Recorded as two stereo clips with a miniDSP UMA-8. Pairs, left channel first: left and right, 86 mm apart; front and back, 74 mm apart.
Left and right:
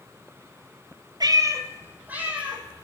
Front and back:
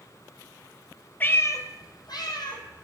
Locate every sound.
1.2 s a cat meowing: 65° right, 0.5 m; by 2.8 s 10° right, 1.4 m